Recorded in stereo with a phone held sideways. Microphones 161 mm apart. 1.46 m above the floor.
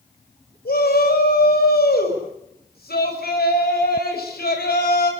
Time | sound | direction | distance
0.7 | a shout | 75° left (ahead or behind) | 6.5 m